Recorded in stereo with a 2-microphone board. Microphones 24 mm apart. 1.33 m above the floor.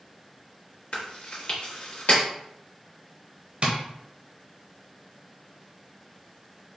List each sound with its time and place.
0.9 s chewing: 60° left (ahead or behind), 1.3 m
3.6 s tapping: 50° right (ahead or behind), 0.9 m